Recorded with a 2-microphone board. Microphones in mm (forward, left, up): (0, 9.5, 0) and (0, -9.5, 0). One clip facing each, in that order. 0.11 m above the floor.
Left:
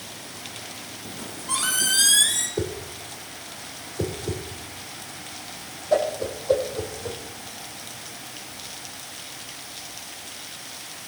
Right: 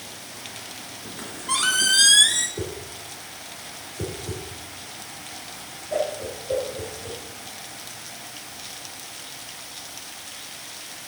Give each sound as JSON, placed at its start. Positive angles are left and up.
{"t": 1.1, "sound": "a squeak", "side_deg": -20, "distance_m": 1.2}
{"t": 2.6, "sound": "a whoosh", "side_deg": 40, "distance_m": 3.0}